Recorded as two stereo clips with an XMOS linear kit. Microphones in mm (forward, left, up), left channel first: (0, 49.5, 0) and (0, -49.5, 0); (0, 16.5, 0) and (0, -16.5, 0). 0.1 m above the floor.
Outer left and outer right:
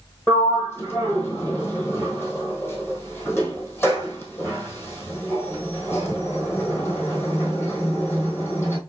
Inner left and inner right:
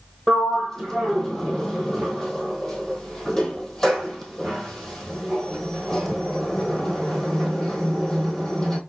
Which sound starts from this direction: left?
A sliding door, at 0.3 s.